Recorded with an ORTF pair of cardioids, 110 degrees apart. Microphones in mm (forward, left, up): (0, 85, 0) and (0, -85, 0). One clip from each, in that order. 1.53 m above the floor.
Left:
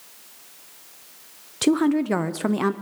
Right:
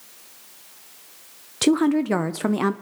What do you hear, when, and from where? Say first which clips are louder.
1.6 s a woman speaking: right 1 dB; 10° right, 0.7 m